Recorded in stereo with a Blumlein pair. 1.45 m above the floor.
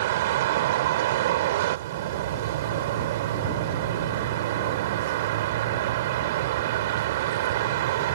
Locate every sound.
0.0 s a vehicle: 55° right